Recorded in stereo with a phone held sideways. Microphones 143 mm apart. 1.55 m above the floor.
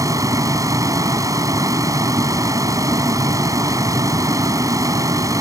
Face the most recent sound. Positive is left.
turn(degrees=-25)  # may be behind; listen again after turning